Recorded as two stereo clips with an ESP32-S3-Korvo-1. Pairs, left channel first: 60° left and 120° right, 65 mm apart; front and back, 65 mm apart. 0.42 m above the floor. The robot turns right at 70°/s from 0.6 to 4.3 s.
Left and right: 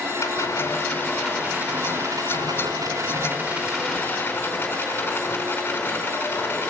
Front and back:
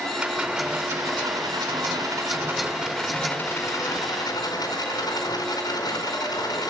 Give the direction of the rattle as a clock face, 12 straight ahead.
9 o'clock.